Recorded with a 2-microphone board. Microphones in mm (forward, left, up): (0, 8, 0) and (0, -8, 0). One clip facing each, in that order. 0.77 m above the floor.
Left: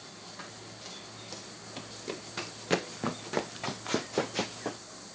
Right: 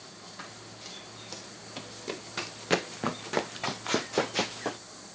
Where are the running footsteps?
5° right (ahead or behind); by 4.8 s 20° right (ahead or behind).